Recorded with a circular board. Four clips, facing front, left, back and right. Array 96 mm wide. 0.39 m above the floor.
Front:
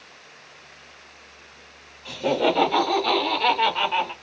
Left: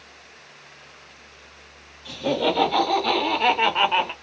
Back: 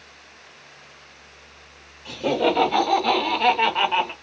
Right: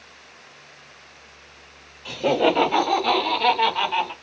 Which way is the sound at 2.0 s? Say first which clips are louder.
Right 3 dB, even; 85° right.